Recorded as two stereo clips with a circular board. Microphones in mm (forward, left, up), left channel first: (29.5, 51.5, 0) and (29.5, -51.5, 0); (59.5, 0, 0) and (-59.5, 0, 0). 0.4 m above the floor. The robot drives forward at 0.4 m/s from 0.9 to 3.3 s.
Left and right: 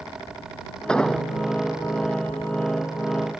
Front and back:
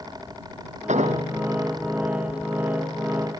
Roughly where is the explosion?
Behind.